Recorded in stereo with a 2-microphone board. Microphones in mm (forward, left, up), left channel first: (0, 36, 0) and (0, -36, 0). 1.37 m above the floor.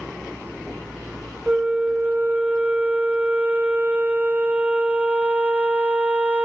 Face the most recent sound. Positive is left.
turn(degrees=-20)  # may be behind; listen again after turning